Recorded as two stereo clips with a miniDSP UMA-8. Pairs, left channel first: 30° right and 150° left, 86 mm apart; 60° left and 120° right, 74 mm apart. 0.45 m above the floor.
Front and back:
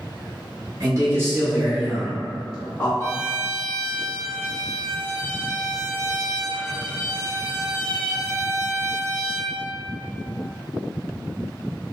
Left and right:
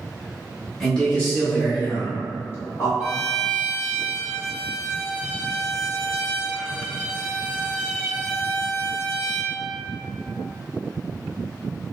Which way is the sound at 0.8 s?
135° left.